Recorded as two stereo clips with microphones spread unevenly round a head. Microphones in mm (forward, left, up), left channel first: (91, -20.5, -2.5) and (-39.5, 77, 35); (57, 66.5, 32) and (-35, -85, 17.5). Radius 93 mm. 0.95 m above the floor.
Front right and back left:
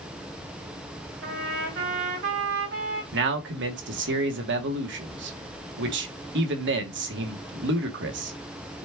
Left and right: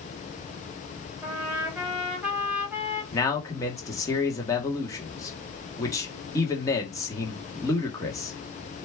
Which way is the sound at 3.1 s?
135° left.